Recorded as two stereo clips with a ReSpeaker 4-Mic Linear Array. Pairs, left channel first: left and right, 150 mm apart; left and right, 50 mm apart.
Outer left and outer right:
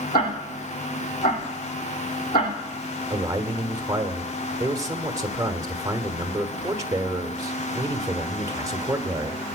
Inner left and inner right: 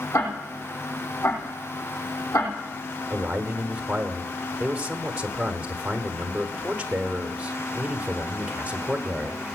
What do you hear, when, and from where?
0.1 s ticking: 85° left, 5 m
3.1 s a man speaking: 20° right (ahead or behind), 1.2 m